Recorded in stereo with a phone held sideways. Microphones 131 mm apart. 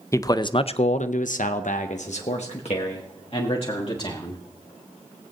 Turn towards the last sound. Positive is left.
turn(degrees=45)  # may be behind; listen again after turning